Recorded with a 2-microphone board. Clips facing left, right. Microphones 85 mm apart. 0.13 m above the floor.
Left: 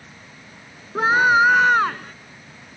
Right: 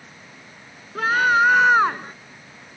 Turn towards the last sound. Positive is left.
turn(degrees=-25)  # may be behind; listen again after turning